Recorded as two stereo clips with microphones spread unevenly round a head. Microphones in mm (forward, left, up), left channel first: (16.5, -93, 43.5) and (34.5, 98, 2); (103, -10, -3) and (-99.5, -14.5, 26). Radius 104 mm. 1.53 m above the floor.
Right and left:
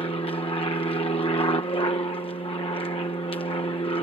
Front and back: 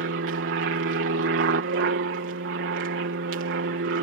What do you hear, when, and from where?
0.0 s an aircraft: 165° right